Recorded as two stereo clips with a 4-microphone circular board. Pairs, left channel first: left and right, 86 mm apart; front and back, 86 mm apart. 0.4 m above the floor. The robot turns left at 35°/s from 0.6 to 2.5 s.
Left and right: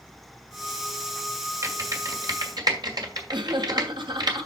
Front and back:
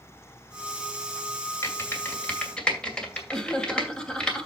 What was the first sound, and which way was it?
Typing on a keyboard, 45° right.